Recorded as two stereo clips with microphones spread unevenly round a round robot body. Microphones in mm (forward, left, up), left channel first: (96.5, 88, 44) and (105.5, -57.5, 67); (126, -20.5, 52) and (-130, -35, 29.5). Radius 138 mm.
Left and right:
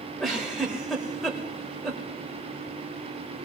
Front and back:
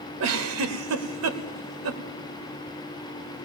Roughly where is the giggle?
Behind.